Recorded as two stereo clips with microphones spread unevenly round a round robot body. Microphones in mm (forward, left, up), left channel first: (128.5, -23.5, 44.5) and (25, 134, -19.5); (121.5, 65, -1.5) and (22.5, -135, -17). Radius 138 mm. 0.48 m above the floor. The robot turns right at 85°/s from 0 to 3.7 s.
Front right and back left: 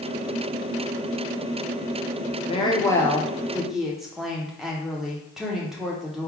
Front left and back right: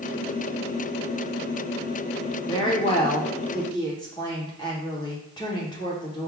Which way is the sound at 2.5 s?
10° left.